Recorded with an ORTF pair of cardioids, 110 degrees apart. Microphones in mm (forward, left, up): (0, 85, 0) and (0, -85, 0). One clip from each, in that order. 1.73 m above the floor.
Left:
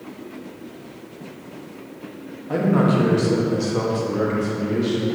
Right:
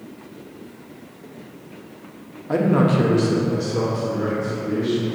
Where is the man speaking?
25° right, 1.5 m; by 5.1 s 55° left, 2.5 m.